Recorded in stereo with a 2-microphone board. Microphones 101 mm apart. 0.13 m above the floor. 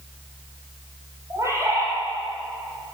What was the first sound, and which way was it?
A bird, 30° right (ahead or behind).